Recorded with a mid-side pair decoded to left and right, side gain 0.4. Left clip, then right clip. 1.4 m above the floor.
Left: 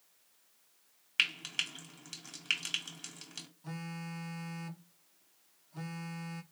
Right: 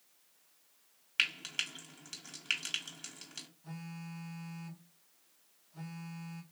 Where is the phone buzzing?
50° left, 0.9 m.